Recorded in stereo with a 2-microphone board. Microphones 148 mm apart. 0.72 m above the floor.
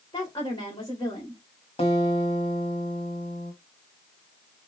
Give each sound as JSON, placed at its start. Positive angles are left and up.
{"t": 0.1, "sound": "a woman speaking", "side_deg": 30, "distance_m": 2.5}
{"t": 1.8, "sound": "a guitar", "side_deg": 45, "distance_m": 1.7}